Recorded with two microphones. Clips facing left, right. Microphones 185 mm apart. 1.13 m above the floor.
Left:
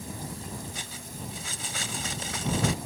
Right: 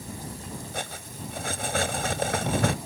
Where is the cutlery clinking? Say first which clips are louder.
Right 5 dB; 65° right (ahead or behind).